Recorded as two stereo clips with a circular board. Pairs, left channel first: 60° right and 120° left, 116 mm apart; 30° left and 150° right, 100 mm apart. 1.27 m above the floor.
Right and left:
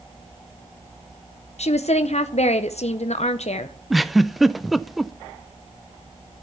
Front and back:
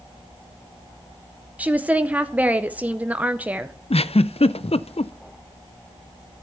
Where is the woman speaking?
75° right, 0.7 m.